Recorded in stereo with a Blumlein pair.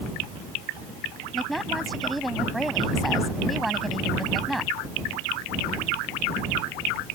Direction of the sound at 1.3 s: 5° right.